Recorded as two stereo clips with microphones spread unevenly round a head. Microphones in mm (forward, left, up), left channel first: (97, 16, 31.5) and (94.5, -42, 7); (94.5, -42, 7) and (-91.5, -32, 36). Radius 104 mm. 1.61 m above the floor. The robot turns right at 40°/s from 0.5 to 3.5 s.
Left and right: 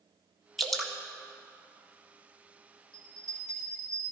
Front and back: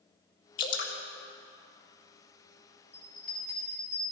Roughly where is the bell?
Right.